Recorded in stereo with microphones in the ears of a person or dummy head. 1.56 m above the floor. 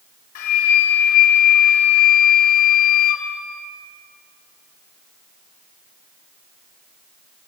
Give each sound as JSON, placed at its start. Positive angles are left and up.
{"t": 0.3, "sound": "a flute", "side_deg": 55, "distance_m": 1.0}